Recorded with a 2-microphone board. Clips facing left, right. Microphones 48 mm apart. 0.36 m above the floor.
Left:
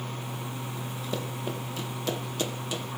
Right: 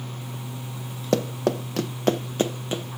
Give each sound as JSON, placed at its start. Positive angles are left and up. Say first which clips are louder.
{"t": 1.1, "sound": "running footsteps", "louder": "right 12 dB", "side_deg": -65, "distance_m": 1.1}